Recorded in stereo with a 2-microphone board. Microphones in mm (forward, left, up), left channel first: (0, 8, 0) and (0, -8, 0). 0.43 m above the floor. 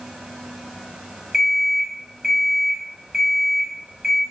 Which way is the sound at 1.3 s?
30° right (ahead or behind).